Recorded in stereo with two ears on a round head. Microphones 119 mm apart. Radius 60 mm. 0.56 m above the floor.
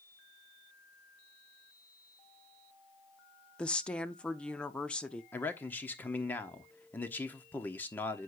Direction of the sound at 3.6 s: 10° left (ahead or behind).